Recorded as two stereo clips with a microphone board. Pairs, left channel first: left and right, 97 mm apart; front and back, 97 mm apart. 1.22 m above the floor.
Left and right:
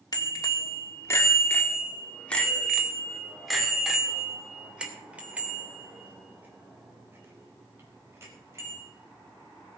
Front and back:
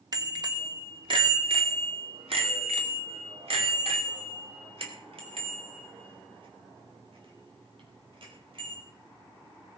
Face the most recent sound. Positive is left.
turn(degrees=-155)